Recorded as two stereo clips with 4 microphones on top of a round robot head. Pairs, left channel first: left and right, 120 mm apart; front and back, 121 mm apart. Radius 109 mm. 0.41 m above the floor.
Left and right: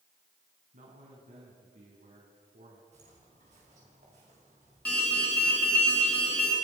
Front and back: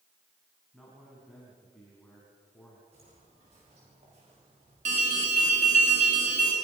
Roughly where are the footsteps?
Behind right.